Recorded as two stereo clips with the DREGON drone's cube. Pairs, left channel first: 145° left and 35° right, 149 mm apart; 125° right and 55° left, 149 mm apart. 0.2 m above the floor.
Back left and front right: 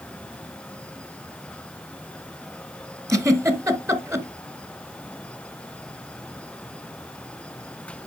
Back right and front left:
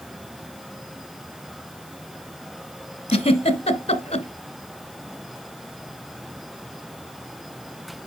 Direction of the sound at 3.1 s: 95° right.